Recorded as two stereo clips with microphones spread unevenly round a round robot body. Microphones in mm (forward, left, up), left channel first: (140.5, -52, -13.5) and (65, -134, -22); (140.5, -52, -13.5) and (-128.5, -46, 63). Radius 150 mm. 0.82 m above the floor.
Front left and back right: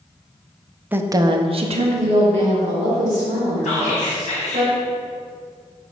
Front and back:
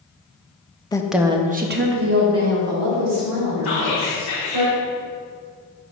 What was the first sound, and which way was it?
A woman speaking, 60° right.